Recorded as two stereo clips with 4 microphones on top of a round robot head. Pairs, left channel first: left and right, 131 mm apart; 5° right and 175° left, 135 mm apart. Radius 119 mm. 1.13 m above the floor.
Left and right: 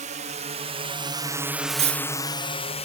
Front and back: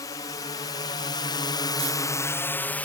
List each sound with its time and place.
0.0 s a drone: 70° right; by 2.9 s 70° left
1.7 s cutlery clinking: 125° right